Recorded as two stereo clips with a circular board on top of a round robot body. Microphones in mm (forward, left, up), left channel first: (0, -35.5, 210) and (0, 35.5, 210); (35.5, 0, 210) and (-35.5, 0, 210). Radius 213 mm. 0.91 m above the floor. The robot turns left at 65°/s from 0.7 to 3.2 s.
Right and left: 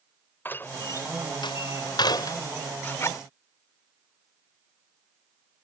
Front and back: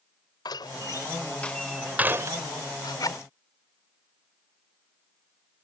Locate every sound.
0.5 s a door slam: 25° right; by 2.4 s 135° right
2.8 s a zipper: 20° right; by 3.2 s 45° right